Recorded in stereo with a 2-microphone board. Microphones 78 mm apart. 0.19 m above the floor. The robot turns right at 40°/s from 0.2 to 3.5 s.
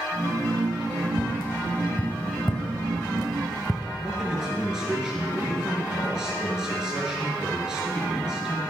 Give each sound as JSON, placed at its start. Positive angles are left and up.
{"t": 1.2, "sound": "tapping", "side_deg": 30, "distance_m": 0.9}
{"t": 4.0, "sound": "a man speaking", "side_deg": -10, "distance_m": 3.5}